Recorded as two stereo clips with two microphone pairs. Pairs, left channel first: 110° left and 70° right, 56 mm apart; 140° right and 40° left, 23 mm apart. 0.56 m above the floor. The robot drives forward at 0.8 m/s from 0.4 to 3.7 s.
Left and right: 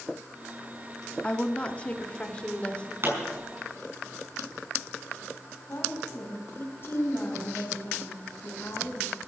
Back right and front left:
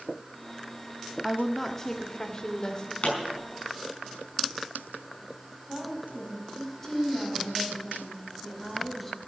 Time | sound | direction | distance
1.2 | a woman speaking | 130° left | 0.7 m
3.0 | a pop | 110° right | 5.5 m
5.7 | a woman speaking | 150° left | 3.5 m